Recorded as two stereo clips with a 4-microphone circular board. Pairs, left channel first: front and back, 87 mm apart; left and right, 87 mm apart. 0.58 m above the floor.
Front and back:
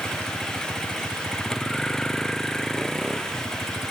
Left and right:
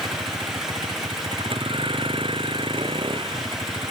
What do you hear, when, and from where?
0.0 s a vehicle: 80° right; by 3.9 s 85° right